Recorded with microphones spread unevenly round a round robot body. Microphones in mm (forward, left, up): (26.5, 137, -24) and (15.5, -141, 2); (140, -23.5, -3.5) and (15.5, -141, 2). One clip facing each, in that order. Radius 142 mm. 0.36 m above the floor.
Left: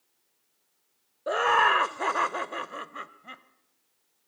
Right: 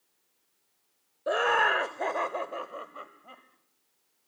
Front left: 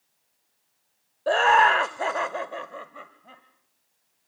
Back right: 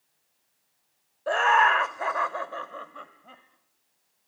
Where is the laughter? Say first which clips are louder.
Even, front left 3 dB; 5° left, 1.2 m; by 3.4 s 135° left, 1.5 m.